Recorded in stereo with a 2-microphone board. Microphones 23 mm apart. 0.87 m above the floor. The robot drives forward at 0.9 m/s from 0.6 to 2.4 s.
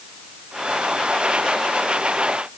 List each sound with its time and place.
Only background noise.